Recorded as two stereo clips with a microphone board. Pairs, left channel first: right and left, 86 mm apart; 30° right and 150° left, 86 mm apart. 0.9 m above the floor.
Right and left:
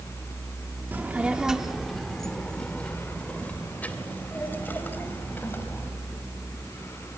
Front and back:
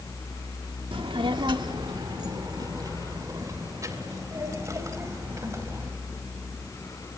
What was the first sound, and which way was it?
A child speaking, 160° left.